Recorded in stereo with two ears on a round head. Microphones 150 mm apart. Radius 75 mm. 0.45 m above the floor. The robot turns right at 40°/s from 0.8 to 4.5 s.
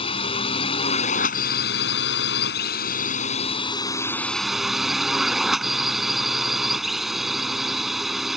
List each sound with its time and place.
0.0 s a drone: 35° left; by 8.4 s straight behind